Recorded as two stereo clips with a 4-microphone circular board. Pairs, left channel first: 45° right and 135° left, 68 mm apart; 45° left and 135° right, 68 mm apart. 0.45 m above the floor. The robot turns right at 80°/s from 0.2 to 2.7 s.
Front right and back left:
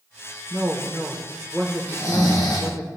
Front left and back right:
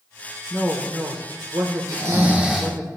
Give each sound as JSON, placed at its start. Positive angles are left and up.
{"t": 0.5, "sound": "a woman speaking", "azimuth_deg": 140, "distance_m": 1.0}
{"t": 1.9, "sound": "snoring", "azimuth_deg": -100, "distance_m": 3.0}